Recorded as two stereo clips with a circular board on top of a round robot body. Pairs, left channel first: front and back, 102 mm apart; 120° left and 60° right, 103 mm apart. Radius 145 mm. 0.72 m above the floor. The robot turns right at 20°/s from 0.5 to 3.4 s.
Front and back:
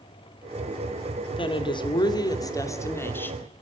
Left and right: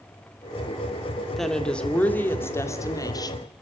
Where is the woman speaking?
30° left, 2.5 m; by 3.5 s 75° left, 2.5 m.